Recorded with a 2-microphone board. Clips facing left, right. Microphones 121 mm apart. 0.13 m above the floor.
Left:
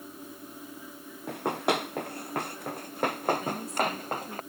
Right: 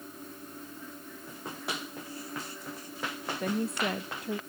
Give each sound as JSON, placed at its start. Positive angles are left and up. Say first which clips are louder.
{"t": 1.3, "sound": "running footsteps", "louder": "left 12 dB", "side_deg": 80}
{"t": 3.4, "sound": "a woman speaking", "louder": "even", "side_deg": -70}